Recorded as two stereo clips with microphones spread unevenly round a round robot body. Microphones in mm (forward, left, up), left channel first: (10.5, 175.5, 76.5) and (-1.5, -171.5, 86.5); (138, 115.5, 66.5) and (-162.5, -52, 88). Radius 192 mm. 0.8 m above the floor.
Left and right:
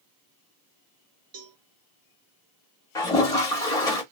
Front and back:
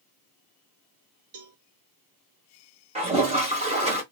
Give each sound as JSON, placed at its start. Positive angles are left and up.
{"t": 1.3, "sound": "a cowbell", "azimuth_deg": -145, "distance_m": 1.4}
{"t": 3.0, "sound": "a toilet flushing", "azimuth_deg": 165, "distance_m": 0.6}